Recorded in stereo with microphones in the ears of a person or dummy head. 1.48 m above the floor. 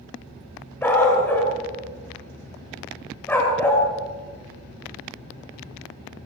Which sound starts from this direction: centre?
A dog barking, at 0.8 s.